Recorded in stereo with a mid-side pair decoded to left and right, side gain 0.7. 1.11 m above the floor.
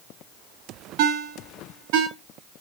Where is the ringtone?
65° right, 1.0 m.